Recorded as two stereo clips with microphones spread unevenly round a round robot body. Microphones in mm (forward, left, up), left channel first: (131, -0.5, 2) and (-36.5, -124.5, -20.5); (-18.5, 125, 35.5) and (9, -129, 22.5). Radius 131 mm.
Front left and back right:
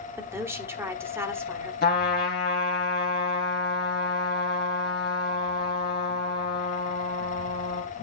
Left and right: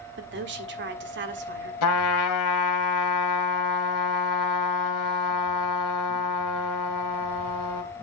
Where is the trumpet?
95° left, 1.6 m.